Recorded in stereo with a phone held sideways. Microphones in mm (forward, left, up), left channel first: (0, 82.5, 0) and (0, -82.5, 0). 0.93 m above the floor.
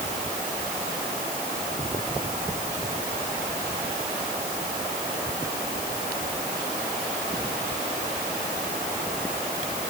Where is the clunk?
I don't hear a clunk.